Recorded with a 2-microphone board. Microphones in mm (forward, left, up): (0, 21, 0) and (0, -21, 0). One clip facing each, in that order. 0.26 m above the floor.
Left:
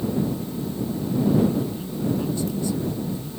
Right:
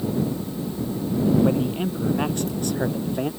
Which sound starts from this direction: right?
A man speaking, at 1.4 s.